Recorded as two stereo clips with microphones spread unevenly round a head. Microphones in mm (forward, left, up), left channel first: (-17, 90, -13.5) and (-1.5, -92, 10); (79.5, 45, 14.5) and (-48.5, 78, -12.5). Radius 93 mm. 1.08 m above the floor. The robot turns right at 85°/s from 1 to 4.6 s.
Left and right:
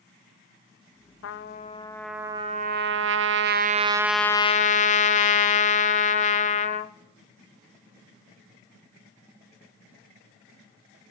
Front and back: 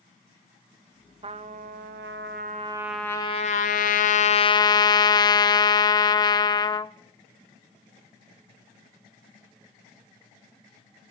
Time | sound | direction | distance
1.2 | a trumpet | 115° left | 0.6 m